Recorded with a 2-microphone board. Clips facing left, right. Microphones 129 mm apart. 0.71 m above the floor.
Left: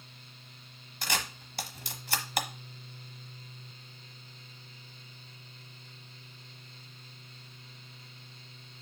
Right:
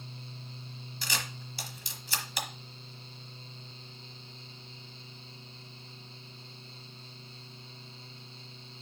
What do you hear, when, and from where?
1.0 s a camera shutter: 55° left (ahead or behind), 1.1 m